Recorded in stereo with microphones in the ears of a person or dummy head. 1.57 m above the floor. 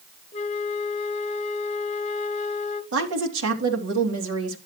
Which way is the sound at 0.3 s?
35° left (ahead or behind).